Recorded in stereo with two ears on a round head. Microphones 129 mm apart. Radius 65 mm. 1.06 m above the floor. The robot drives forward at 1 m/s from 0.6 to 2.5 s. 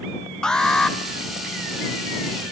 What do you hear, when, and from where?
0.4 s an alarm: 5° left (ahead or behind), 1.7 m